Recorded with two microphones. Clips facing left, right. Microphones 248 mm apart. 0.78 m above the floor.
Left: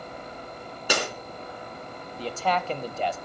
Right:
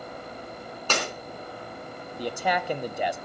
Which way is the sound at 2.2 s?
15° right (ahead or behind).